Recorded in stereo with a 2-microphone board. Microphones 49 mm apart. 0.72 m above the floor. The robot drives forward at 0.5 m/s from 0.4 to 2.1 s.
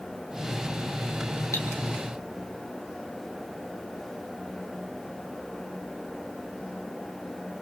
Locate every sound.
1.5 s cutlery clinking: 85° left, 5 m